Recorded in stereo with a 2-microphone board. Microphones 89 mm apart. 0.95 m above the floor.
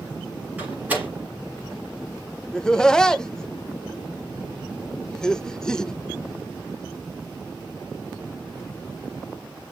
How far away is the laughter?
About 0.7 m.